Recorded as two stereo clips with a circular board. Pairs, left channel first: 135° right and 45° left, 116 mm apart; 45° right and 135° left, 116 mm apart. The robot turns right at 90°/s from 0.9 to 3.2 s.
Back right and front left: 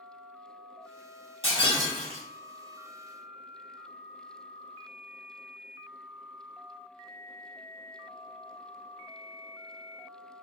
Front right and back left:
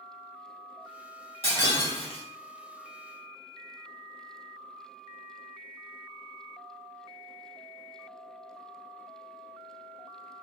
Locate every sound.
1.4 s breaking glass: 110° right, 1.6 m; by 2.2 s 40° right, 1.6 m